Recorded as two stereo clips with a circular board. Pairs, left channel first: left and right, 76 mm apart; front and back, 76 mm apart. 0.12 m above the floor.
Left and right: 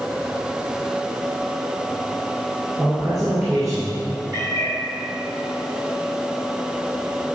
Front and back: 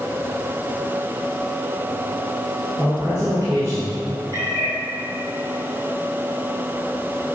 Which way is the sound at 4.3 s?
50° right.